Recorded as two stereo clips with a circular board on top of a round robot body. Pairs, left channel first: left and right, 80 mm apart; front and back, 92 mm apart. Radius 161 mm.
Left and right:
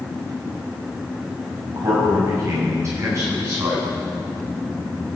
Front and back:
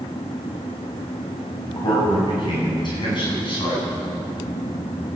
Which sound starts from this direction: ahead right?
A man speaking, at 1.7 s.